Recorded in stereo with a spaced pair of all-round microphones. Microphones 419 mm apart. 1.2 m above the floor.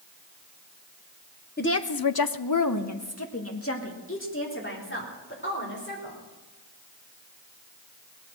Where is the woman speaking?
25° left (ahead or behind), 0.7 m.